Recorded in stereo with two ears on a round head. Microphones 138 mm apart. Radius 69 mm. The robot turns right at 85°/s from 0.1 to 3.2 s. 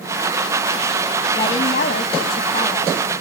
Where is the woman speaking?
25° left, 0.7 m; by 2.9 s 160° left, 0.7 m.